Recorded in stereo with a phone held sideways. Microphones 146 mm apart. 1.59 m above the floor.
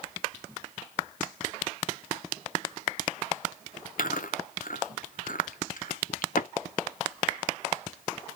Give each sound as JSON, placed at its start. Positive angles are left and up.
{"t": 4.0, "sound": "chewing", "side_deg": 70, "distance_m": 0.6}